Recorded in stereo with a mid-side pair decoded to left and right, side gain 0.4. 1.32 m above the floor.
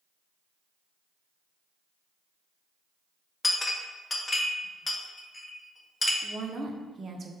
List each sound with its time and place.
3.4 s a clink: 20° left, 0.6 m
6.2 s a woman speaking: 45° right, 0.5 m